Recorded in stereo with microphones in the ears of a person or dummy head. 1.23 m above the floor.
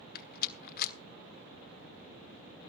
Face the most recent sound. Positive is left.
turn(degrees=55)  # may be behind; listen again after turning